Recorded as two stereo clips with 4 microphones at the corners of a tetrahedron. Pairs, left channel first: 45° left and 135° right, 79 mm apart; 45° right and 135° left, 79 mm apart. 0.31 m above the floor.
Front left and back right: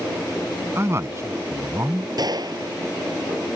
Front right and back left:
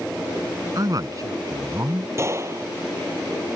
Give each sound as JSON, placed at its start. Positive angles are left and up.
{"t": 0.8, "sound": "a man speaking", "azimuth_deg": 170}
{"t": 2.2, "sound": "a gunshot", "azimuth_deg": -170}